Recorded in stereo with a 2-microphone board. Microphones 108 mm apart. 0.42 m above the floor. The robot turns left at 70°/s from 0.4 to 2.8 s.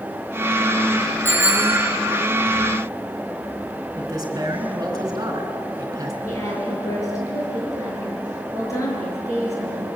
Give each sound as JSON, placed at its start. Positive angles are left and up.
{"t": 1.2, "sound": "a bicycle bell", "azimuth_deg": 165, "distance_m": 5.0}
{"t": 4.0, "sound": "a man speaking", "side_deg": -35, "distance_m": 5.0}
{"t": 6.2, "sound": "a woman speaking", "side_deg": 30, "distance_m": 8.0}